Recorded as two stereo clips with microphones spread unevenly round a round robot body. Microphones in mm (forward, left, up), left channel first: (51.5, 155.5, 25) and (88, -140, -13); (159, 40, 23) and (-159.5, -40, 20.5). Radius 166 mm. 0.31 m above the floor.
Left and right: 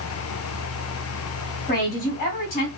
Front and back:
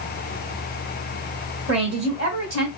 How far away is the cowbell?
I don't hear a cowbell.